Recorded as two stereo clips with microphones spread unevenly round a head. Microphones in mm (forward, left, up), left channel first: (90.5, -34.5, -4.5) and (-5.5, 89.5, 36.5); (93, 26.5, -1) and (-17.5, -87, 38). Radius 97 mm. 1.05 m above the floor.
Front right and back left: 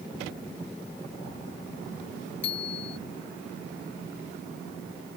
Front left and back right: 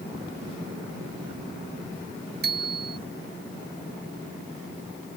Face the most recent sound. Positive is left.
turn(degrees=-115)